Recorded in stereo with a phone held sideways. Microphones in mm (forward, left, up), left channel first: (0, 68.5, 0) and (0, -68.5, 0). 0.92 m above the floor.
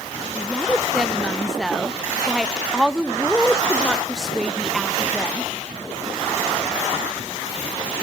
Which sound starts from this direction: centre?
A woman speaking, at 0.3 s.